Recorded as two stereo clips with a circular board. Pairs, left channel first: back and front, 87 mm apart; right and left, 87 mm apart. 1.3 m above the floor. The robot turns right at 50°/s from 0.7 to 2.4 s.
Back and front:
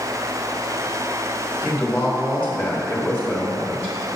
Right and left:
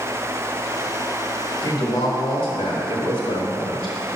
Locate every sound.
1.6 s a woman speaking: 120° right, 2.5 m; by 4.0 s 80° right, 2.5 m